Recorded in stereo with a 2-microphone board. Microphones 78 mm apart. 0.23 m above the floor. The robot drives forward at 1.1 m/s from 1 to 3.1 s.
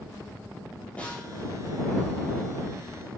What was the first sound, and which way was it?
A snare drum, 15° left (ahead or behind).